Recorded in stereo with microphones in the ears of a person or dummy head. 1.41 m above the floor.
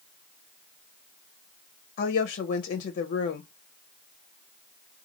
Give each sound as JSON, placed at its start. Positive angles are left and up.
{"t": 2.0, "sound": "a woman speaking", "side_deg": 45, "distance_m": 0.7}